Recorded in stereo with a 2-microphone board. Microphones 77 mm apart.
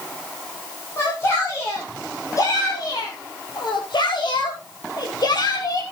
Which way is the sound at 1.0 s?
30° left (ahead or behind).